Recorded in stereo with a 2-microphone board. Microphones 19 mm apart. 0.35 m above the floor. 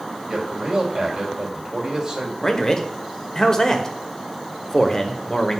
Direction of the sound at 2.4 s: 25° left (ahead or behind).